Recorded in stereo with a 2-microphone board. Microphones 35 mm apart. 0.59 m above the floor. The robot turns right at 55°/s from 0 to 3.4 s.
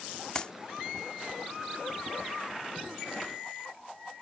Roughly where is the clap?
Left.